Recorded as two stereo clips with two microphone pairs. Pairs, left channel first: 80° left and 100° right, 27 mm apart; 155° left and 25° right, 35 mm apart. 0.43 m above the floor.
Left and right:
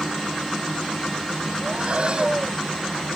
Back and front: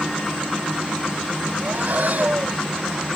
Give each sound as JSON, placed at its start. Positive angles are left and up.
{"t": 1.6, "sound": "breathing", "azimuth_deg": -55}